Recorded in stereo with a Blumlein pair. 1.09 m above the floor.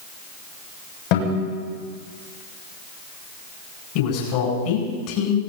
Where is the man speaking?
45° left, 8.5 m.